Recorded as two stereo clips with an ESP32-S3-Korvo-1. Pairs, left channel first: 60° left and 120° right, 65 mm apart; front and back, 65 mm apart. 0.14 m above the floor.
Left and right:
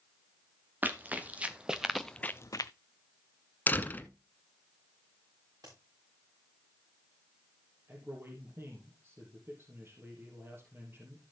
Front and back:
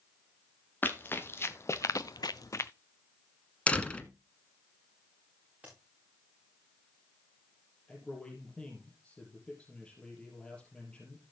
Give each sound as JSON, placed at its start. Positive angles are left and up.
{"t": 0.8, "sound": "running footsteps", "azimuth_deg": -60, "distance_m": 2.0}
{"t": 3.7, "sound": "a door slam", "azimuth_deg": 50, "distance_m": 1.1}
{"t": 5.6, "sound": "a crack", "azimuth_deg": -115, "distance_m": 7.5}
{"t": 7.9, "sound": "a man speaking", "azimuth_deg": -75, "distance_m": 3.5}